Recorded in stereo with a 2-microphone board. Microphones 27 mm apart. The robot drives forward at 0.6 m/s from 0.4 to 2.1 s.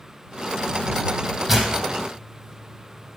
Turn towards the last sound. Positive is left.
turn(degrees=-20)  # may be behind; listen again after turning